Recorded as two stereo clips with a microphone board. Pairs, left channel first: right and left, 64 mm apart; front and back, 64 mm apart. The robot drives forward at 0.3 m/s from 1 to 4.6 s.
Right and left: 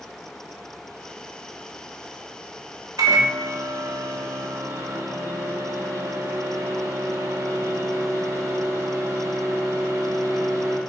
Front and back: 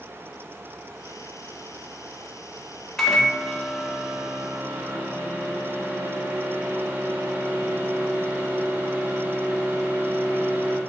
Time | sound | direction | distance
3.0 | a microwave | 80° left | 0.7 m